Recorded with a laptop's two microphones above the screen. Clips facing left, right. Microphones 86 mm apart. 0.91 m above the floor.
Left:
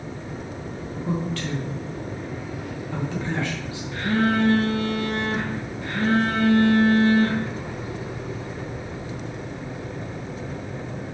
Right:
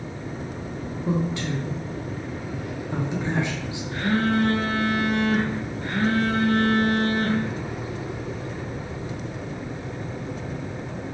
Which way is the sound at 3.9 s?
55° right (ahead or behind).